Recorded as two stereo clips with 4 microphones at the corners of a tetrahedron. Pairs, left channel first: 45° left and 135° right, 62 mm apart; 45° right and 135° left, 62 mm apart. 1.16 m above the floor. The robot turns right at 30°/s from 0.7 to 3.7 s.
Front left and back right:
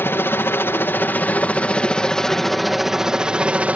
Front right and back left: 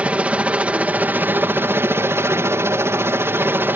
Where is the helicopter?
75° left; by 3.8 s 165° left.